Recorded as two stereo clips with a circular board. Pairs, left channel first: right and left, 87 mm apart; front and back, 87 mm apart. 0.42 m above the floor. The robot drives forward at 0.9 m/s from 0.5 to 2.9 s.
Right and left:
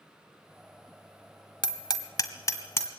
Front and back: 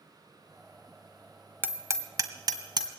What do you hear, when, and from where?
1.6 s hammering: 115° right, 1.1 m; by 2.9 s 150° right, 1.9 m